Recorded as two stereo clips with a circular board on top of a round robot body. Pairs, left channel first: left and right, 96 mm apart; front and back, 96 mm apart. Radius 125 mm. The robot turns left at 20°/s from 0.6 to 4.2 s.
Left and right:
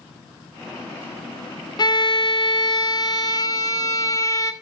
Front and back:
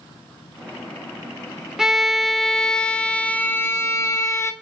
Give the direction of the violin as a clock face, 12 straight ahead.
9 o'clock.